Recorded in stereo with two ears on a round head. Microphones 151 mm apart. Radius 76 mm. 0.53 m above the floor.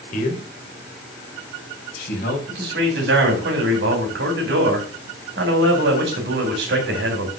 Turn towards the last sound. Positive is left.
turn(degrees=-75)  # may be behind; listen again after turning